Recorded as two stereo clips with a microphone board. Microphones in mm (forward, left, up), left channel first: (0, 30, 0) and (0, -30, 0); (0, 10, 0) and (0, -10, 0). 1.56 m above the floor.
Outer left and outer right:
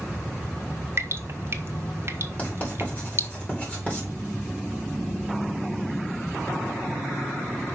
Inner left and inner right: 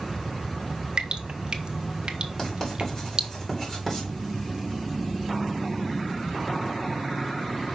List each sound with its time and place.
1.0 s dripping: 45° right (ahead or behind), 0.9 m
2.4 s writing: 25° left (ahead or behind), 3 m